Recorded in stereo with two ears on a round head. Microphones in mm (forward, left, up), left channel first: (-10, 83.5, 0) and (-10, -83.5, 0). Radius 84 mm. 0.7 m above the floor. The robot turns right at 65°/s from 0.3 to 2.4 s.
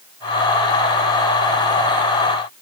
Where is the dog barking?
I don't hear a dog barking.